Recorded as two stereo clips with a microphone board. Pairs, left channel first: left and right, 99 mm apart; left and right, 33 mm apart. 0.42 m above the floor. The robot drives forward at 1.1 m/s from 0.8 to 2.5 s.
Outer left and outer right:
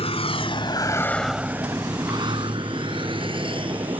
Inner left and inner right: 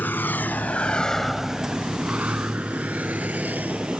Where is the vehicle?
80° left; by 4.0 s 60° right (ahead or behind).